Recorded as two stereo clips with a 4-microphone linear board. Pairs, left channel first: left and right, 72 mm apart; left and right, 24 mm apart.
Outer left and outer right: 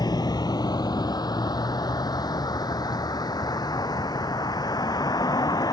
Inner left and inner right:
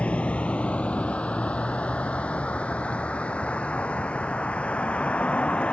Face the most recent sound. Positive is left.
turn(degrees=65)  # may be behind; listen again after turning